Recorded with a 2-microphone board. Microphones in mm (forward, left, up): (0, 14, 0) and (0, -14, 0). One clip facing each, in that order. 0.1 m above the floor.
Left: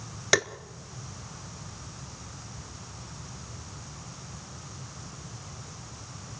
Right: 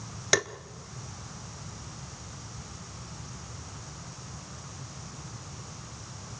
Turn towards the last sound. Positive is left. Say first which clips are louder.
# left 2 dB
turn(degrees=10)  # may be behind; listen again after turning